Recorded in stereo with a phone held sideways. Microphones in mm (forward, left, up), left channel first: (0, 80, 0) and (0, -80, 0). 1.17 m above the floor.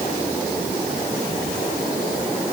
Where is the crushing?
No crushing in this recording.